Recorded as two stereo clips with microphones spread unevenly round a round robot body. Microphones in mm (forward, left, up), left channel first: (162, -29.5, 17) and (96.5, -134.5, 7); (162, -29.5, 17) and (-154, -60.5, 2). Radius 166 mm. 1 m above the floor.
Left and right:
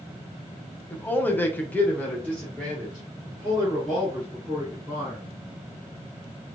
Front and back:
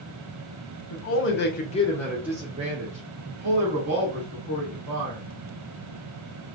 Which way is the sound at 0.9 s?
15° right.